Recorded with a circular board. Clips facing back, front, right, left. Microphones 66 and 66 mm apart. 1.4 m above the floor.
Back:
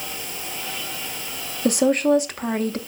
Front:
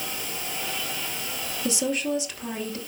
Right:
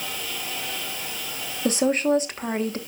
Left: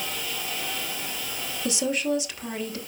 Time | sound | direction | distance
1.6 | a woman speaking | 140° right | 1.1 m